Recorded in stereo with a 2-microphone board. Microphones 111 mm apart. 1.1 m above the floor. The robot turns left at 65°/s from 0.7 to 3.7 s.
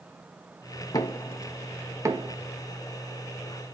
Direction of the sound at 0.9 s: 35° left (ahead or behind).